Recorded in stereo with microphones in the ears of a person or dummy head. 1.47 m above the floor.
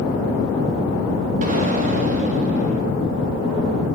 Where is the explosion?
40° right (ahead or behind), 3 m.